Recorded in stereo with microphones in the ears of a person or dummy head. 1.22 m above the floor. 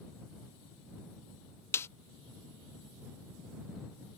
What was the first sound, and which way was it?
A snare drum, 10° left (ahead or behind).